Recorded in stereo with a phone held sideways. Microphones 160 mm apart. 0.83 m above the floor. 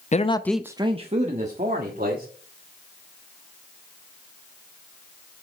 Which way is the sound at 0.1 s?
50° left (ahead or behind).